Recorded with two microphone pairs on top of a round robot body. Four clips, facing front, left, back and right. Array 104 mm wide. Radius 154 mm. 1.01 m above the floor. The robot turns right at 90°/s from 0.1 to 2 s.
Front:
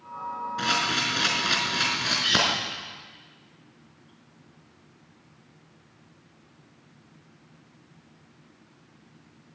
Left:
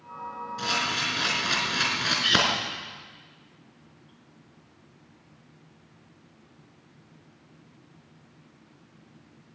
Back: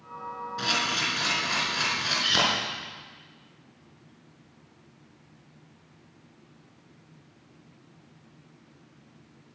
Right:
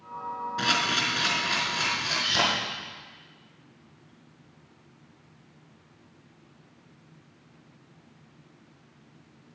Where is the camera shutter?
65° right, 3.5 m; by 2.4 s 60° left, 3.5 m.